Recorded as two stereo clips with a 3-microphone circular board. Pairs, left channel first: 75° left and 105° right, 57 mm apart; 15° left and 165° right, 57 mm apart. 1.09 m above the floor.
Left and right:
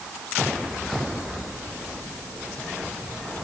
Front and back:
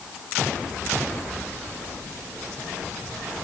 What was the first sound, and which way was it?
Only background noise.